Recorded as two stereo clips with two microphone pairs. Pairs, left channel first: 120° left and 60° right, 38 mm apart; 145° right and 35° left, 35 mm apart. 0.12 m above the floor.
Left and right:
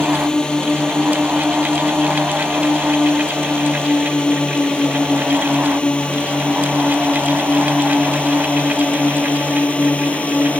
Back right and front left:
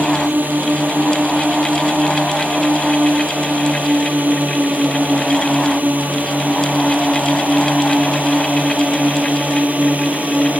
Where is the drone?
50° left; by 10.6 s 70° left.